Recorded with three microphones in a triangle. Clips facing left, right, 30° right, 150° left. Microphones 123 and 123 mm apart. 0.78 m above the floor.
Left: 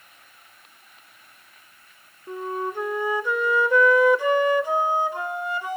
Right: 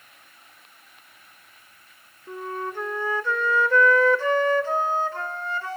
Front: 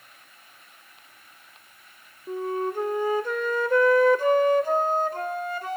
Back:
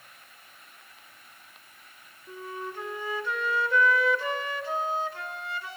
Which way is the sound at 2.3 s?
15° left.